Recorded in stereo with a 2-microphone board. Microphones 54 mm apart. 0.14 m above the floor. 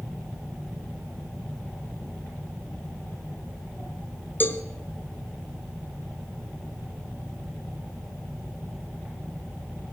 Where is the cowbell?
40° left (ahead or behind), 0.7 m.